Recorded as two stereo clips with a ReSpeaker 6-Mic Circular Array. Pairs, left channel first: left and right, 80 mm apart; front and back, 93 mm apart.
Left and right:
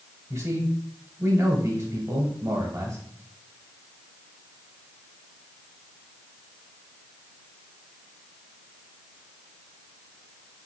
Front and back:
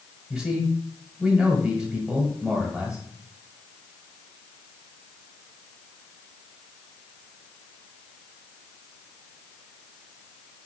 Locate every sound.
0.3 s a man speaking: 100° right, 1.2 m